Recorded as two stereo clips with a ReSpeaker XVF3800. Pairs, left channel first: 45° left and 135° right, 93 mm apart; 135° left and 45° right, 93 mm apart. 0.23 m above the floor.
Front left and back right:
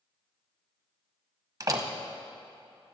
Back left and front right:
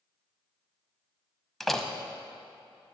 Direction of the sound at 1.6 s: 140° right.